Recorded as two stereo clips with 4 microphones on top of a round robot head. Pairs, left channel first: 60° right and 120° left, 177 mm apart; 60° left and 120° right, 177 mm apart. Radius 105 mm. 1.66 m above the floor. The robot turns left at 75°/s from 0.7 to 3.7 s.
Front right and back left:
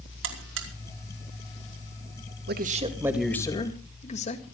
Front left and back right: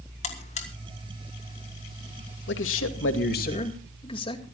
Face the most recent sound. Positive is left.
turn(degrees=-5)